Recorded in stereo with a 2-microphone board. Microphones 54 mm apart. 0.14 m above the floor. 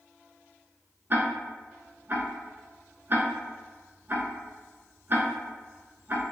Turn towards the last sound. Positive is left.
turn(degrees=-40)  # may be behind; listen again after turning